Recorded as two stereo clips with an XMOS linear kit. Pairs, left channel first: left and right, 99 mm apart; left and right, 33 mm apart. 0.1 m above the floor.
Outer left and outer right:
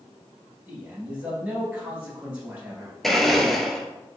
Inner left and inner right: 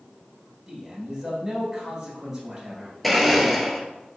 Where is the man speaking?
10° right (ahead or behind), 1.8 m.